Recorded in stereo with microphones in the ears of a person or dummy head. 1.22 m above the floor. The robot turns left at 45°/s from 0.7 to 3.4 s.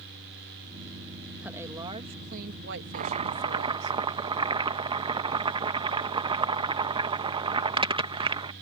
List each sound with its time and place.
1.4 s a woman speaking: 5° right; by 3.9 s 95° right
2.9 s boiling: 45° right (ahead or behind); by 8.5 s 25° right (ahead or behind)